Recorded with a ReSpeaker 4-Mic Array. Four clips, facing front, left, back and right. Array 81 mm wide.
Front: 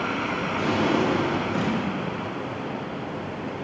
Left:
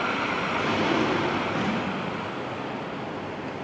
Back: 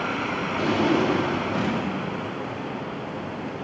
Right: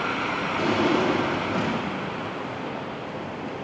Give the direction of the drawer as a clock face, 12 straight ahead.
4 o'clock.